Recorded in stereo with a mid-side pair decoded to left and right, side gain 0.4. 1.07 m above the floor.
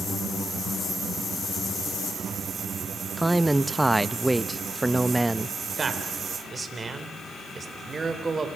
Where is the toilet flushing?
I don't hear a toilet flushing.